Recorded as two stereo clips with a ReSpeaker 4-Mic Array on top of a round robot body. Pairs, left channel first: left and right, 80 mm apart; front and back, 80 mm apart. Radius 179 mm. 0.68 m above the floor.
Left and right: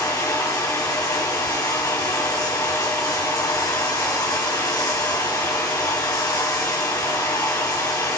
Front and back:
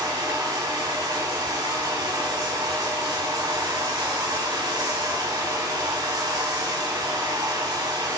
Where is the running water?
135° left, 2 m.